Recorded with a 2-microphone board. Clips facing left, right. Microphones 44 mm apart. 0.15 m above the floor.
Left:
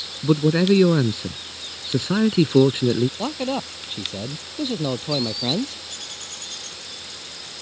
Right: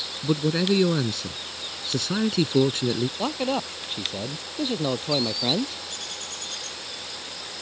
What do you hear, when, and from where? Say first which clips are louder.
0.2 s a man speaking: left 5 dB; 20° left (ahead or behind)
3.2 s a man speaking: even; 5° right (ahead or behind)